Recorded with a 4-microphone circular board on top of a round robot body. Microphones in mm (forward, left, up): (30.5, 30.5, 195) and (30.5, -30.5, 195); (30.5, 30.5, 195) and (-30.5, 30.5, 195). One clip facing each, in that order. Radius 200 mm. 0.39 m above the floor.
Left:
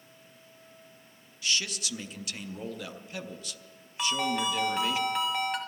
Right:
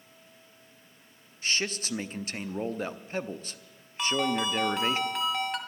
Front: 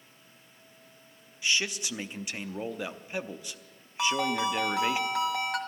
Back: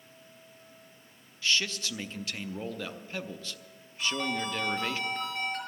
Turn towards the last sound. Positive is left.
turn(degrees=0)